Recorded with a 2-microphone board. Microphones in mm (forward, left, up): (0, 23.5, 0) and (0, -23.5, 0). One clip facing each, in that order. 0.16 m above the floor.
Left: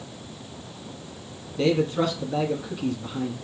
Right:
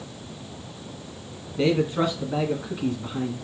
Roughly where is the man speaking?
Centre.